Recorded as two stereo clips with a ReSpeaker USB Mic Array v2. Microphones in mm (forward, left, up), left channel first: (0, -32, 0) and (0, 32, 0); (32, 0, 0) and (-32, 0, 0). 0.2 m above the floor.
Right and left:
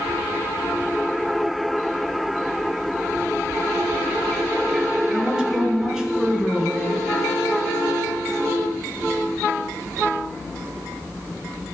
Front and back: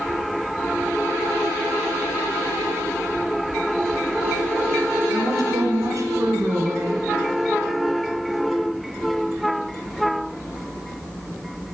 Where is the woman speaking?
170° left, 2.5 m.